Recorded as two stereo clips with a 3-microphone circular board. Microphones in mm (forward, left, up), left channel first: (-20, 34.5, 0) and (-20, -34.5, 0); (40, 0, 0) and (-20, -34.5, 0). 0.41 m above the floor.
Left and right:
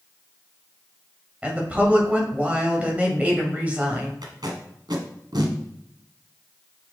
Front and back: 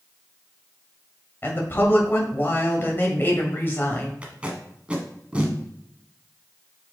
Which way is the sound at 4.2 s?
75° right.